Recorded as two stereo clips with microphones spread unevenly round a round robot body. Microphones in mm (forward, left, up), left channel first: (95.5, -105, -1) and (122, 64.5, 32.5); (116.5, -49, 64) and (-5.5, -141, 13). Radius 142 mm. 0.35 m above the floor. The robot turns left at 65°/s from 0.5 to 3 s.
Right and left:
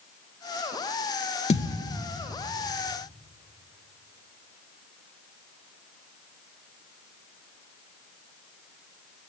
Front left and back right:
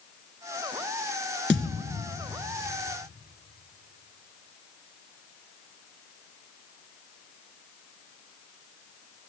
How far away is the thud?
About 2 m.